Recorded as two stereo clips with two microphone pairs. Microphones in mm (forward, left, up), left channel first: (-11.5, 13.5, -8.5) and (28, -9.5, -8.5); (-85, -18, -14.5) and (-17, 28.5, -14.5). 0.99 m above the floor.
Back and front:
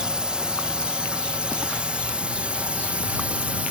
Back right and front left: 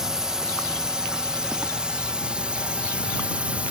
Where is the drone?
35° right; by 3.7 s 25° right.